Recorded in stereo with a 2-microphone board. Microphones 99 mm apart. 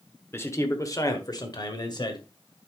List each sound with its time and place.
0.3 s a man speaking: 25° left (ahead or behind), 1.1 m; by 2.2 s 50° left (ahead or behind), 2 m